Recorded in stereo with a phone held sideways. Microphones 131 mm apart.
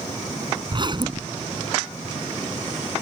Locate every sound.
0.7 s a zipper: 35° right (ahead or behind)